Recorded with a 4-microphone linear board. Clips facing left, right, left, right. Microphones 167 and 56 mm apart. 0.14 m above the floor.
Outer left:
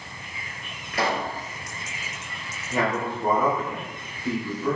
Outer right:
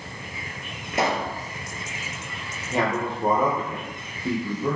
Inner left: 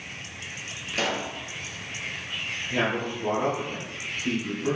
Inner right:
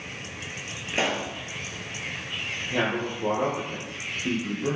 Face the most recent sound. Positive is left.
turn(degrees=-20)  # may be behind; listen again after turning